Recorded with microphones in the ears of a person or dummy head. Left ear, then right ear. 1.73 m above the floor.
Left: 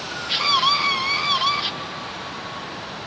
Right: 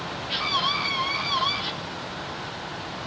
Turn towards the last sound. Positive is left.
turn(degrees=75)  # may be behind; listen again after turning